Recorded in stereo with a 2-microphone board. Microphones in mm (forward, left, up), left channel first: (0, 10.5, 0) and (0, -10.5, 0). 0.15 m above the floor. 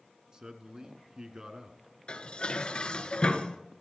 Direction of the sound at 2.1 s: 55° left (ahead or behind).